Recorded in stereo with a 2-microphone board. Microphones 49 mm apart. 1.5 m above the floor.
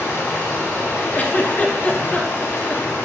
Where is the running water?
65° left (ahead or behind), 1.6 m.